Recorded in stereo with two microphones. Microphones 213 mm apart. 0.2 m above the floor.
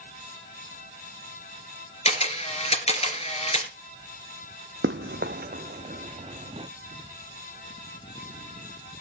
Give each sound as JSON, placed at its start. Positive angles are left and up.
{"t": 2.0, "sound": "a camera shutter", "side_deg": 30, "distance_m": 2.5}
{"t": 4.8, "sound": "running footsteps", "side_deg": -70, "distance_m": 0.8}